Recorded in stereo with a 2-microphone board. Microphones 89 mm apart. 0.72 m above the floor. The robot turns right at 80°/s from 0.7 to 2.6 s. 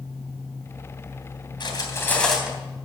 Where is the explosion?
I don't hear an explosion.